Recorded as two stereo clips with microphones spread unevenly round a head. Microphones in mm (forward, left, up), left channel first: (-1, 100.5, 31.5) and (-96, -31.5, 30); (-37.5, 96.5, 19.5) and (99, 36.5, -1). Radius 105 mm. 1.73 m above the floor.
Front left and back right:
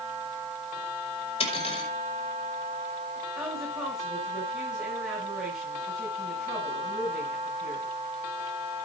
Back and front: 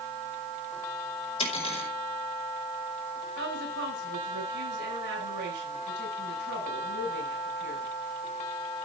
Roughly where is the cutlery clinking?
Left.